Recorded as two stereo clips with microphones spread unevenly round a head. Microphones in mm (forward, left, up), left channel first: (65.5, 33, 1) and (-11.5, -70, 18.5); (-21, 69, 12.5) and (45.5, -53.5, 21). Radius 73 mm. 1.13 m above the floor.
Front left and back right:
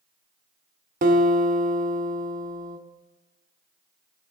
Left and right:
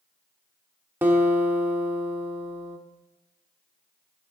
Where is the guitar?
135° right, 1.2 m.